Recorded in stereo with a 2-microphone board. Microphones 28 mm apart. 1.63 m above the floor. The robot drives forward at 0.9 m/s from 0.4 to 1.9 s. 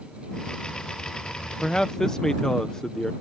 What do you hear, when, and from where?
1.6 s a man speaking: 30° left (ahead or behind); by 3.1 s 25° left (ahead or behind)